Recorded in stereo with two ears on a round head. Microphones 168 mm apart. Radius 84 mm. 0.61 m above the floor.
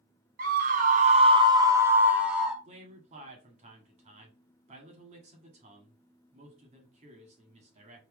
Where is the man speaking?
40° right (ahead or behind), 1.6 m.